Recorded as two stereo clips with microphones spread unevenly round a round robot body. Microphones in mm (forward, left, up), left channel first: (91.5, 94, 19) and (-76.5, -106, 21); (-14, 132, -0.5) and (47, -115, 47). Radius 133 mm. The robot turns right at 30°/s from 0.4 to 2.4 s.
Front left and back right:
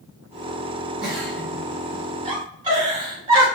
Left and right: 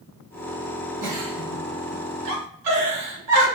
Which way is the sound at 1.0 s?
95° right.